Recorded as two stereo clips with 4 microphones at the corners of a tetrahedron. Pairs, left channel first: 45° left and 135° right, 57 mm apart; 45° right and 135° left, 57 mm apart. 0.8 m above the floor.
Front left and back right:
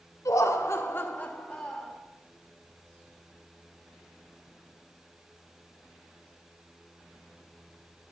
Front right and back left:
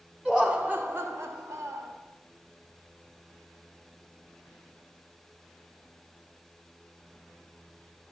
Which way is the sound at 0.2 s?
60° left.